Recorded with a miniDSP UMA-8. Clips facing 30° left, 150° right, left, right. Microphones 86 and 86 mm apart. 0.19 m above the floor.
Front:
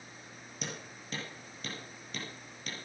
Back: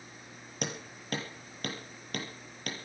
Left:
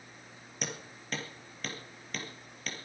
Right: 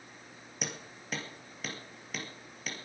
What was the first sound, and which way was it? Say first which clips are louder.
Hammering: back 5 dB, left 1 dB; 175° right.